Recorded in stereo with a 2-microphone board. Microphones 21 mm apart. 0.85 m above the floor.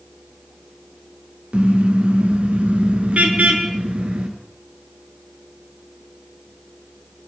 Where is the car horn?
70° right (ahead or behind), 4.5 m; by 4.3 s 85° right, 5.5 m.